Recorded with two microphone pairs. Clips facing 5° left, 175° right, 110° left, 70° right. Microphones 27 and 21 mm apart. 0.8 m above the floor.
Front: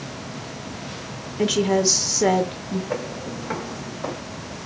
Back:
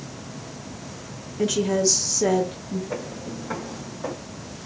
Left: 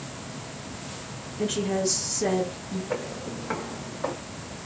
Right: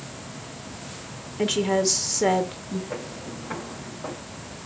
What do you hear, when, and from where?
1.4 s a woman speaking: 40° right, 0.6 m
2.9 s footsteps: 55° left, 1.8 m; by 4.1 s 80° left, 1.5 m